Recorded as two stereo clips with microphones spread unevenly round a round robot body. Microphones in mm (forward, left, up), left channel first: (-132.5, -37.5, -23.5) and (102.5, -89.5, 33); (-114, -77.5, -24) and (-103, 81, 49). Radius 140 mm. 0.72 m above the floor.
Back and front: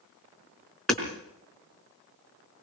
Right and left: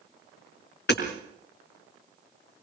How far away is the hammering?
About 4.5 m.